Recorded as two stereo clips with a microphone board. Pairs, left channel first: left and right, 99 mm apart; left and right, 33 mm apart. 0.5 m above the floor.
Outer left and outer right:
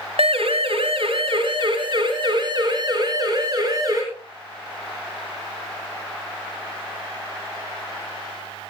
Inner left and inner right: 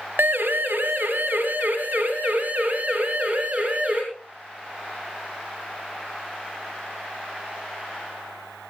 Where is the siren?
75° right (ahead or behind), 2.5 m; by 4.0 s 40° right (ahead or behind), 5.5 m.